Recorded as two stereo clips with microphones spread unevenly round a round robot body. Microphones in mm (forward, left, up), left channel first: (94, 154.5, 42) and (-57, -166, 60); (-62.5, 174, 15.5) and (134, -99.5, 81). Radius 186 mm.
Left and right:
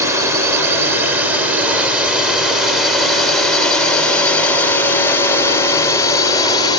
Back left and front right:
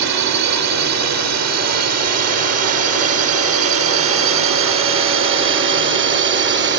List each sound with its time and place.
0.0 s a drone: 35° right; by 6.8 s 5° right